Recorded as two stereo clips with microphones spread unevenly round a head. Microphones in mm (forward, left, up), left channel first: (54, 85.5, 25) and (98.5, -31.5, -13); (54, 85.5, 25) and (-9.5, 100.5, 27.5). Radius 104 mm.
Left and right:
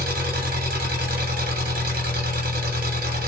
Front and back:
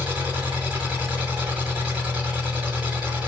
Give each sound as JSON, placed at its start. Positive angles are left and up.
{"t": 0.0, "sound": "an engine running", "azimuth_deg": -110, "distance_m": 1.2}